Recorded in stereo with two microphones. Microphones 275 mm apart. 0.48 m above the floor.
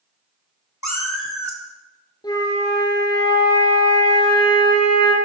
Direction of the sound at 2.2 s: 15° left (ahead or behind).